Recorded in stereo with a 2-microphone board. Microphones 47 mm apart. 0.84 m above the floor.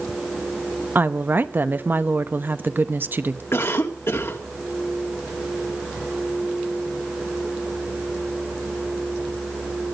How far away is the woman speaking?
About 0.9 m.